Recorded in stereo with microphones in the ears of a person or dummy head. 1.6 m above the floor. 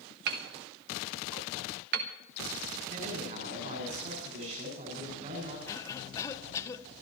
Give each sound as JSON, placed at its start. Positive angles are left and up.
{"t": 0.3, "sound": "hammering", "side_deg": -55, "distance_m": 1.2}
{"t": 2.9, "sound": "a man speaking", "side_deg": -50, "distance_m": 6.5}
{"t": 5.7, "sound": "a cough", "side_deg": 20, "distance_m": 1.1}